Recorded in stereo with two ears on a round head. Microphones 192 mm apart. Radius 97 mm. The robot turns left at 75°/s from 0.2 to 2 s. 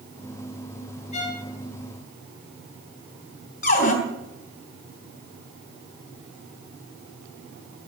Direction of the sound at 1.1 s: 35° left (ahead or behind).